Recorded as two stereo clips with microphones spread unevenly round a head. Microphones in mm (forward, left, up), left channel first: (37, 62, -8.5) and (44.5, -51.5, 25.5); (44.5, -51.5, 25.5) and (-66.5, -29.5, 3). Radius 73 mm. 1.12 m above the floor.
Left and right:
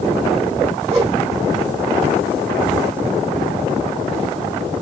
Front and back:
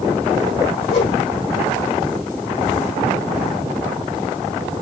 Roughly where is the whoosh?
Ahead right.